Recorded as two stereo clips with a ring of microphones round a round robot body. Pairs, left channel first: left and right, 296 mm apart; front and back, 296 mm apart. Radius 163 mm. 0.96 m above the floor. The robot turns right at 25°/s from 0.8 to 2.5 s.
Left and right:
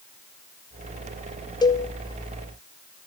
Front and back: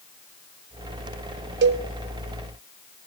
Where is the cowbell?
160° left, 0.8 m; by 1.9 s 165° left, 0.8 m.